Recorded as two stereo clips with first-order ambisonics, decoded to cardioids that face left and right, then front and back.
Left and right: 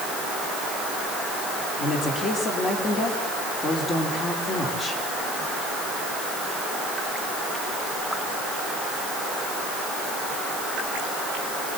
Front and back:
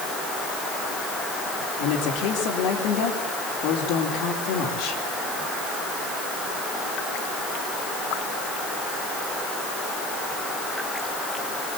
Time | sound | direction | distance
1.8 | a woman speaking | 25° left | 3.5 m